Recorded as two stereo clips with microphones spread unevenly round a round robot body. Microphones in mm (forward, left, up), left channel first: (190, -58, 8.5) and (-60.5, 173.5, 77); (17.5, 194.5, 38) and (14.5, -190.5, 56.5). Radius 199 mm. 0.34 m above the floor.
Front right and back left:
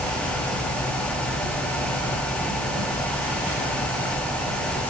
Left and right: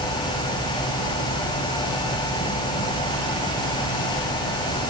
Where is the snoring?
No snoring in this recording.